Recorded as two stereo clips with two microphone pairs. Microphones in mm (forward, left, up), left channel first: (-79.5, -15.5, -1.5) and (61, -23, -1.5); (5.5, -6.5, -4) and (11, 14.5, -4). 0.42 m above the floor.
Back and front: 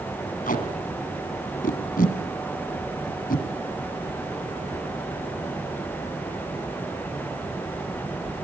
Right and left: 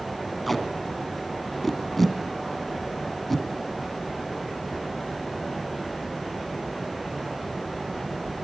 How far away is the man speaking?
No man speaking in this recording.